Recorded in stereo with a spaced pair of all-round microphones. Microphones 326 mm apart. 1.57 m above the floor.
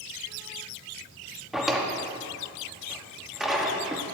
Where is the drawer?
Centre (ahead or behind), 1.1 m.